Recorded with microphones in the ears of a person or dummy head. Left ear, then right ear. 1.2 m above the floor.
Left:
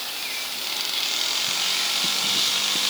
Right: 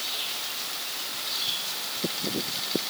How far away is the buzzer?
No buzzer in this recording.